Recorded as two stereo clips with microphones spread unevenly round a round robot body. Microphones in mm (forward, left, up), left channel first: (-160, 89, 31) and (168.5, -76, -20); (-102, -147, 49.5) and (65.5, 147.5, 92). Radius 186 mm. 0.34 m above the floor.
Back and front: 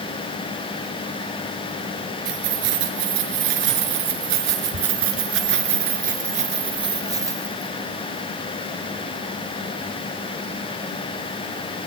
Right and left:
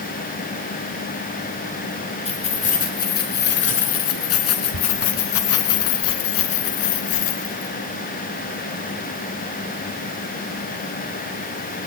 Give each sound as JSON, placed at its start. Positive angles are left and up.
{"t": 2.2, "sound": "keys jangling", "azimuth_deg": -50, "distance_m": 4.0}